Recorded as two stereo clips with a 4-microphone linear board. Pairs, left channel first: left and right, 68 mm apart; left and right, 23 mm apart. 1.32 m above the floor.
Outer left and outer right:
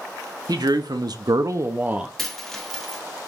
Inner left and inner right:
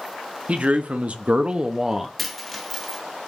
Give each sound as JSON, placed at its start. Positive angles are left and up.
{"t": 0.5, "sound": "a man speaking", "side_deg": -75, "distance_m": 0.9}
{"t": 2.2, "sound": "a dropped coin", "side_deg": 5, "distance_m": 0.9}